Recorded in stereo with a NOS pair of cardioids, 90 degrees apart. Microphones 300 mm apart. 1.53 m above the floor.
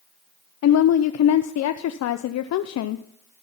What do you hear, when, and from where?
0.6 s a woman speaking: 60° left, 0.7 m